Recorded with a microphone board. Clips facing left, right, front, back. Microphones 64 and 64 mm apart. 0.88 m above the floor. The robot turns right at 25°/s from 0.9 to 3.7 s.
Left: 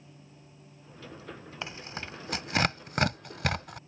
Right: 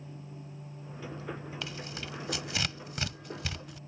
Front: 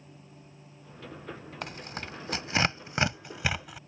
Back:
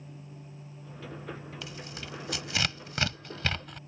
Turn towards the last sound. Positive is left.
turn(degrees=85)